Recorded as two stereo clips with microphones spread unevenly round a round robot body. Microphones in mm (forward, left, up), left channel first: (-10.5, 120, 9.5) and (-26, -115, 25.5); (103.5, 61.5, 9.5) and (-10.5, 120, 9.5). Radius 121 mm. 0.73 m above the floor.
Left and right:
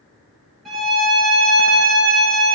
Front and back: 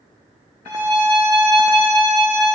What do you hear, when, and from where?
0.7 s a violin: 175° left, 1.0 m